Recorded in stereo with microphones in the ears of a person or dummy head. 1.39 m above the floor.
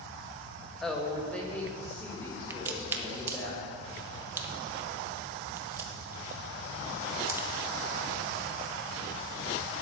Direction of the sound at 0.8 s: 5° left (ahead or behind).